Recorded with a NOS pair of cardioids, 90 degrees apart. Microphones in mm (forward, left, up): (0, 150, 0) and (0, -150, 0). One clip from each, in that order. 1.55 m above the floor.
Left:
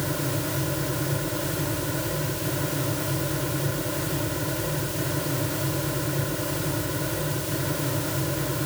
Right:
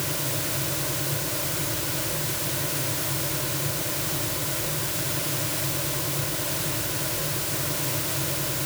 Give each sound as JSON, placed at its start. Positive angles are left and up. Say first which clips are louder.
{"t": 0.0, "sound": "a fan", "louder": "left 1 dB", "azimuth_deg": 65}